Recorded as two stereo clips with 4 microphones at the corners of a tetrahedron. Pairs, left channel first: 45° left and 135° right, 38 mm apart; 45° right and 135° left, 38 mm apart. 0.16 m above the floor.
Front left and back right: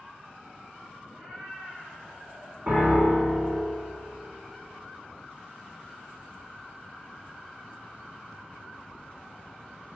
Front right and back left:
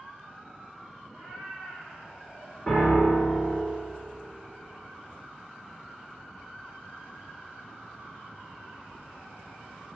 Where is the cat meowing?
145° right, 1.2 m; by 2.6 s 105° right, 1.8 m.